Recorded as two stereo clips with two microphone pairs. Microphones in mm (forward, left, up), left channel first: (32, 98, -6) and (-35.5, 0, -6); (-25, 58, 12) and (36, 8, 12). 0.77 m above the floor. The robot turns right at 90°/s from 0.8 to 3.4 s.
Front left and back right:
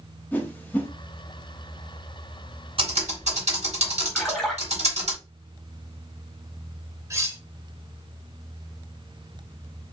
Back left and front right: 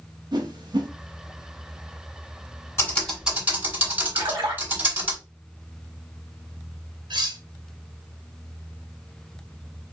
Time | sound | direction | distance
0.3 | a whoosh | 15° right | 1.0 m
2.8 | typing on a keyboard | 165° right | 2.5 m
4.2 | a splash | 25° right | 1.8 m
7.1 | cutlery clinking | 60° right | 0.8 m